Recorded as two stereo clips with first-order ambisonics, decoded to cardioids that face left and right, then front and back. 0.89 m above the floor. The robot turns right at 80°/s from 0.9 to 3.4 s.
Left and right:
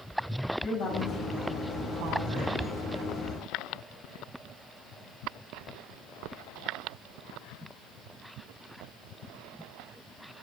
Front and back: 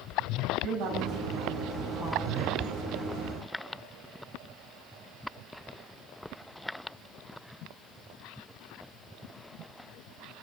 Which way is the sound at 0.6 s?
145° left.